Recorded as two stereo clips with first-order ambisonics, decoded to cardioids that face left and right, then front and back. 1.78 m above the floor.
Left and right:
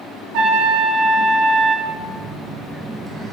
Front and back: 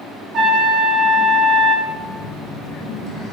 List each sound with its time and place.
0.3 s a trumpet: 120° right, 1.6 m
1.9 s a phone buzzing: 40° right, 1.0 m